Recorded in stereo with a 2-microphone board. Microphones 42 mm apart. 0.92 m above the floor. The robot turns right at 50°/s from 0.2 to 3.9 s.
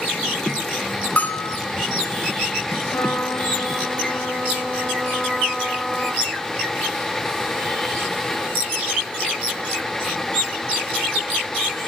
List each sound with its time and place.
1.2 s a bell: 35° left (ahead or behind), 4 m; by 1.6 s 55° left (ahead or behind), 4 m
2.9 s a trumpet: 120° left, 4.5 m; by 6.2 s 170° left, 4.5 m